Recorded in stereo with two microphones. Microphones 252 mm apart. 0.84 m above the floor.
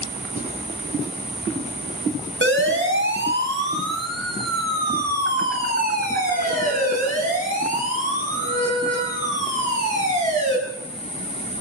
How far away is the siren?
About 5 m.